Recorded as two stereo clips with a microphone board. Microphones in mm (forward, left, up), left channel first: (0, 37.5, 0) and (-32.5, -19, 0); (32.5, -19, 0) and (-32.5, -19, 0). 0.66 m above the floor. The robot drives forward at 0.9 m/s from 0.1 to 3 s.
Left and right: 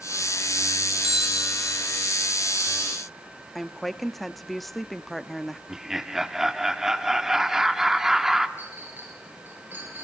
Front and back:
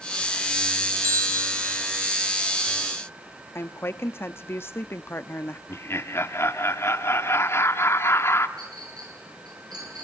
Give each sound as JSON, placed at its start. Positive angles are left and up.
{"t": 1.0, "sound": "a bell", "azimuth_deg": 160, "distance_m": 1.0}
{"t": 3.5, "sound": "a woman speaking", "azimuth_deg": -25, "distance_m": 0.8}
{"t": 5.7, "sound": "laughter", "azimuth_deg": -40, "distance_m": 1.5}
{"t": 8.6, "sound": "a clink", "azimuth_deg": 180, "distance_m": 9.0}